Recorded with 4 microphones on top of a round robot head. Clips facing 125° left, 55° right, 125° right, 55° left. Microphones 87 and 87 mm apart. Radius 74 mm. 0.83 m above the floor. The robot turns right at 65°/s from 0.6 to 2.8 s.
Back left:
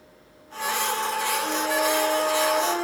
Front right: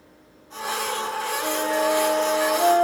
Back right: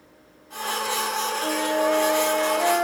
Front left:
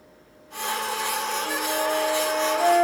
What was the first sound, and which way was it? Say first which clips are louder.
A flute: front right 4 dB, back right 6 dB; 115° right.